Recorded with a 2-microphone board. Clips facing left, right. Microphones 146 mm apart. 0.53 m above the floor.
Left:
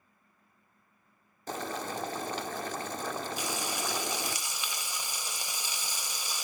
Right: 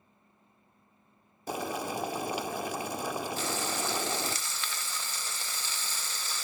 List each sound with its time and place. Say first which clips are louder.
1.5 s boiling: right 2 dB; 10° right (ahead or behind), 0.6 m
3.4 s frying: right 2 dB; 15° left (ahead or behind), 1.1 m